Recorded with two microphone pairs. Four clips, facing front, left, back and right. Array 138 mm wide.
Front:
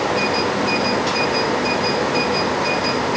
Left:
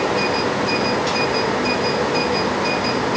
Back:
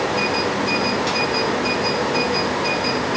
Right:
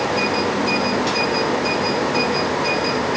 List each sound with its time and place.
Only background noise.